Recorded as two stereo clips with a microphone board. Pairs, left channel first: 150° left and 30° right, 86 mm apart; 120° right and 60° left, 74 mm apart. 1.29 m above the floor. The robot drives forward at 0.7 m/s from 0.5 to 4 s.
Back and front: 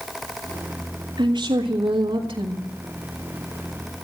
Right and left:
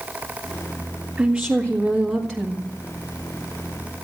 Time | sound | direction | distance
1.2 | a woman speaking | 15° right | 2.5 m